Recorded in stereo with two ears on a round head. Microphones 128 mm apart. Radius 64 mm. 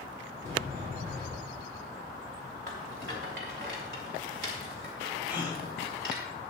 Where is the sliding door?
60° right (ahead or behind), 4.5 m.